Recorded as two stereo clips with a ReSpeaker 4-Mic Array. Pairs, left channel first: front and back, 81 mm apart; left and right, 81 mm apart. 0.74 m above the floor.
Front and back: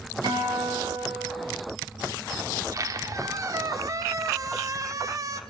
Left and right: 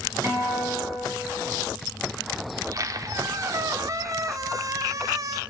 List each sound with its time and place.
0.2 s a guitar: 150° right, 7 m
2.5 s a squeak: 135° right, 0.8 m